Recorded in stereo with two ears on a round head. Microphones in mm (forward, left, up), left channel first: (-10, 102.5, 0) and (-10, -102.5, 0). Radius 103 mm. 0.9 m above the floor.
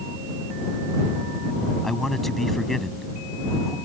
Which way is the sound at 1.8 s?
Centre (ahead or behind).